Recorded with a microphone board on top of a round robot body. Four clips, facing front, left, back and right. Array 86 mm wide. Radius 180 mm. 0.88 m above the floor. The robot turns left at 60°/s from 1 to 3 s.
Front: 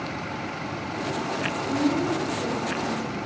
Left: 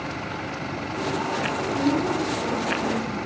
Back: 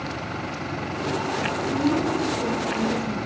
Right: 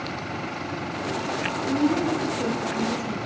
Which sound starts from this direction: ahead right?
A woman speaking, at 1.7 s.